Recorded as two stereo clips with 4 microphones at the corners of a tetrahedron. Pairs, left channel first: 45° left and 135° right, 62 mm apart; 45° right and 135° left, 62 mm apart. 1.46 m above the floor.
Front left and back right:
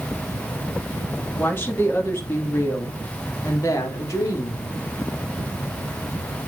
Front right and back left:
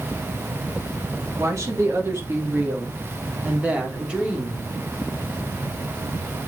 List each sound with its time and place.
1.4 s a woman speaking: 100° left, 2.5 m; by 4.6 s 60° left, 3.5 m